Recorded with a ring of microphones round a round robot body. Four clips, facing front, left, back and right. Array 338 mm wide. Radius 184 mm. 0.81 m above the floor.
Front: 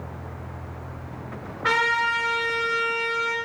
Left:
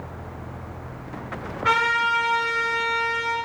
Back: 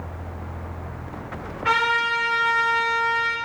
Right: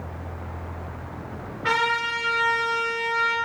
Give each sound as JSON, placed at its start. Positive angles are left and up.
{"t": 1.6, "sound": "a trumpet", "azimuth_deg": -5, "distance_m": 1.6}